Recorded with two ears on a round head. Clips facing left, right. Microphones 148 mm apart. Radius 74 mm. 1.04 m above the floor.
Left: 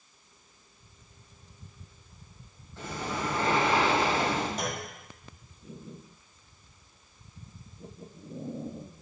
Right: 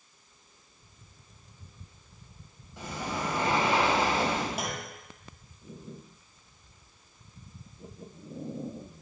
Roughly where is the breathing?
Centre.